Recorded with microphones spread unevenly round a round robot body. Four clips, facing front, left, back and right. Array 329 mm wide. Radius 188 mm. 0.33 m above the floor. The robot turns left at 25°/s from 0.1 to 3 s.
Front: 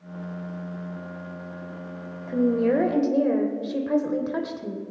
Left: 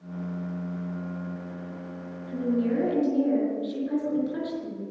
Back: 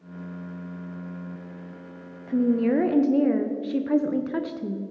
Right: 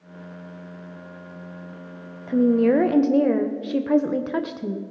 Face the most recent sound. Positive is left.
turn(degrees=-80)